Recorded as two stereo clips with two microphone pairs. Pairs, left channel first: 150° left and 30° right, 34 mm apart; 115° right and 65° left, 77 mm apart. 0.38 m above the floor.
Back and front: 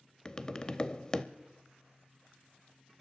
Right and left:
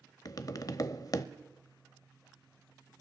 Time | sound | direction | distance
0.2 | tapping | 145° right | 0.6 m